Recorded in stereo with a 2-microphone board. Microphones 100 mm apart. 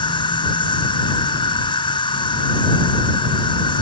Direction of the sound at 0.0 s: 55° left (ahead or behind).